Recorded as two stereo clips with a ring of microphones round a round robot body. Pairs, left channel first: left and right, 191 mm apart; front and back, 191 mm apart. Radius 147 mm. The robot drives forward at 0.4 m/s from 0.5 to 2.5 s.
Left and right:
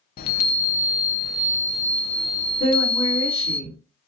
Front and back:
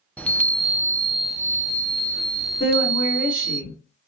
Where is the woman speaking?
65° left, 3 m.